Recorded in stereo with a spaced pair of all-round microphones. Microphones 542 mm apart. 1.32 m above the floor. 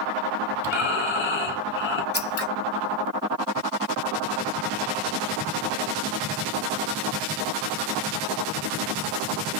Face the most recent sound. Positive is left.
turn(degrees=25)  # may be behind; listen again after turning